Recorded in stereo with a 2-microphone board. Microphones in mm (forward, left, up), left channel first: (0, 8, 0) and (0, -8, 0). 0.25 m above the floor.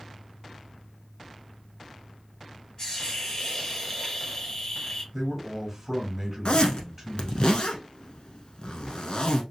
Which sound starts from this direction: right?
A man speaking, at 5.1 s.